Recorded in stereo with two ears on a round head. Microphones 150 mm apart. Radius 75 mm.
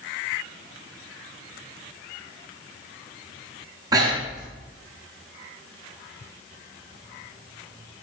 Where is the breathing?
25° right (ahead or behind), 6 m.